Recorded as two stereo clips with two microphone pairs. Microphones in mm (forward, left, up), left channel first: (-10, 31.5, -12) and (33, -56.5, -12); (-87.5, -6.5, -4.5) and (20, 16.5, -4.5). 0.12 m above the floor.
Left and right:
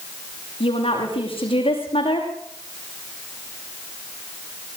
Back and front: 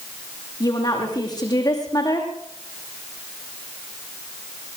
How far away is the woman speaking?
About 6.5 m.